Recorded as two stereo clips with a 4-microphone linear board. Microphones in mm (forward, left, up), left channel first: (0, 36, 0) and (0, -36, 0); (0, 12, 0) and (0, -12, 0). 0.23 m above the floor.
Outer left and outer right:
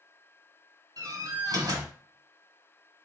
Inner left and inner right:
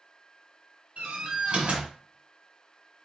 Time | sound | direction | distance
1.0 | a door slam | 50° right (ahead or behind) | 1.6 m